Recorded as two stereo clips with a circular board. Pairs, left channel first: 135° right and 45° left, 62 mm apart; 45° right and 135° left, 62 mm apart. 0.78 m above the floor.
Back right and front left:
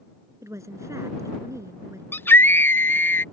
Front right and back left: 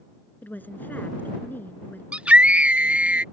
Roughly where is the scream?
Behind.